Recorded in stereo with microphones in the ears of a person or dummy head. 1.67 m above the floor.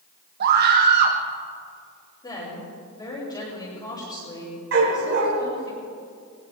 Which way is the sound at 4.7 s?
70° right (ahead or behind).